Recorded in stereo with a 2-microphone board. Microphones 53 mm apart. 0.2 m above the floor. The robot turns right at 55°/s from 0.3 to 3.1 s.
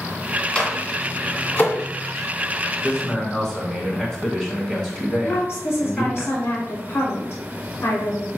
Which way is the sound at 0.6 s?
15° left (ahead or behind).